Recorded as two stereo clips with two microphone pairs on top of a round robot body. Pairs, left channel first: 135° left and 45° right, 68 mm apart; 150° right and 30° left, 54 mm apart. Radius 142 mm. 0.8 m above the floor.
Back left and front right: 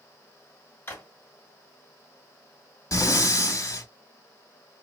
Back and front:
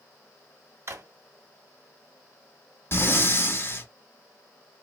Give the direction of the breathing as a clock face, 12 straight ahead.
6 o'clock.